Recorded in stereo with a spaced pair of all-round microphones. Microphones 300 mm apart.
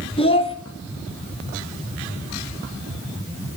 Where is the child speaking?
20° left (ahead or behind), 0.9 m.